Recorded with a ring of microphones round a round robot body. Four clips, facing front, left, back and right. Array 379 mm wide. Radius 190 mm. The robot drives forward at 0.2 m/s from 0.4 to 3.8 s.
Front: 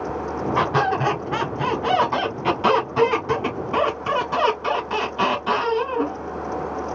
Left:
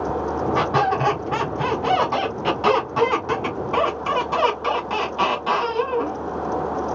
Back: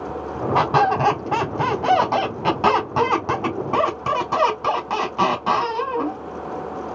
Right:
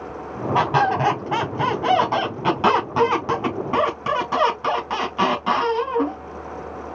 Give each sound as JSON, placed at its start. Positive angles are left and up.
{"t": 0.6, "sound": "a squeak", "azimuth_deg": -155, "distance_m": 3.0}